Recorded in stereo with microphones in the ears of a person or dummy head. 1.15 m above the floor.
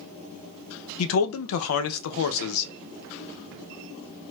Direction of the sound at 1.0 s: 75° left (ahead or behind).